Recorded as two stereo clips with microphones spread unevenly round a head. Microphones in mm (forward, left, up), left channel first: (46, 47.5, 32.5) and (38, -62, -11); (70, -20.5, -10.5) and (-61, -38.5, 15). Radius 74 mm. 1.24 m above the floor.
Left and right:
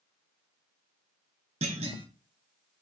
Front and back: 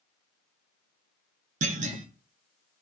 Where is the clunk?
155° right, 0.6 m.